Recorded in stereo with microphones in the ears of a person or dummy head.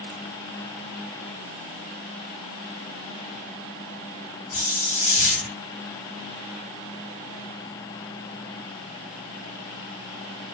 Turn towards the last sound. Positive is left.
turn(degrees=35)  # may be behind; listen again after turning